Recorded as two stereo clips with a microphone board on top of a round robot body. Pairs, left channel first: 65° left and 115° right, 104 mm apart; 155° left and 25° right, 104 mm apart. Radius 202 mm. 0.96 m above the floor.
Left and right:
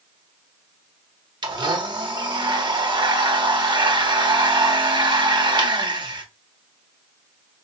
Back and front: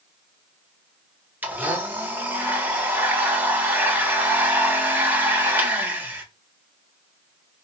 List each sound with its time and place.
1.4 s a blender: 90° right, 1.1 m